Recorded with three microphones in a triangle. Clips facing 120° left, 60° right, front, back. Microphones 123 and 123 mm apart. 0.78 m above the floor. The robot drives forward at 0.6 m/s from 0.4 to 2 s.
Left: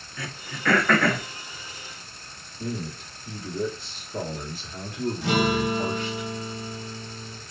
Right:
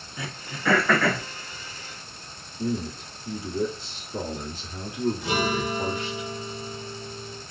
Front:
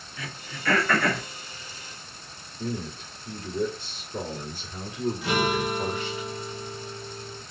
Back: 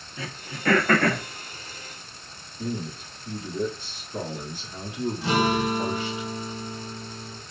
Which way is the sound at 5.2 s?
120° left.